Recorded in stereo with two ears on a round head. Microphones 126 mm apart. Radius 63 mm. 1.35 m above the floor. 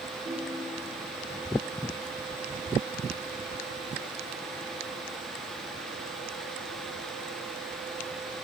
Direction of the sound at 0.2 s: 5° right (ahead or behind).